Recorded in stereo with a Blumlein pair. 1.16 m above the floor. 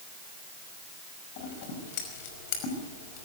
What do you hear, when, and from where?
1.4 s scissors: 50° left, 5.5 m